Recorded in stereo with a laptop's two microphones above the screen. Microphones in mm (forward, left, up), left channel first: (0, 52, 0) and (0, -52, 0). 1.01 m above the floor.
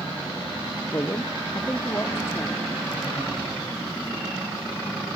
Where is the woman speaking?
35° left (ahead or behind), 0.6 m; by 2.6 s 25° left (ahead or behind), 1.9 m.